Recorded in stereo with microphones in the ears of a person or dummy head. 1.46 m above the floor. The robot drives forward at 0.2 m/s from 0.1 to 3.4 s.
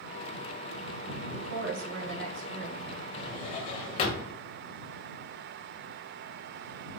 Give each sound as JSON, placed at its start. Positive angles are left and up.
{"t": 1.3, "sound": "a woman speaking", "side_deg": -70, "distance_m": 1.1}
{"t": 3.2, "sound": "a drawer", "side_deg": 35, "distance_m": 0.8}